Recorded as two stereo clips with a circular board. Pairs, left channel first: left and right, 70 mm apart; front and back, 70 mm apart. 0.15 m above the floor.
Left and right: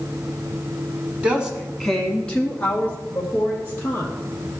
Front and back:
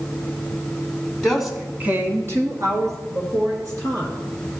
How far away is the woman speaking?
About 1.0 m.